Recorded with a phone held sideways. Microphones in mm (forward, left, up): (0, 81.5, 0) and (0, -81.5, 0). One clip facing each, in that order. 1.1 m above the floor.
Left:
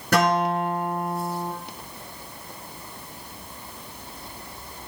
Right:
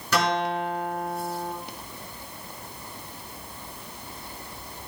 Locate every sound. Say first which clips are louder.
0.1 s a guitar: left 4 dB; 55° left (ahead or behind), 5.5 m